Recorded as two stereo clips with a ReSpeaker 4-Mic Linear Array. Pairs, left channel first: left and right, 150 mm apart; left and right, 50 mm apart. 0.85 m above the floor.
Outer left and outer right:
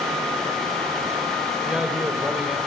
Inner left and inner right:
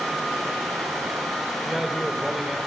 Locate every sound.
1.6 s a man speaking: 5° right (ahead or behind), 3 m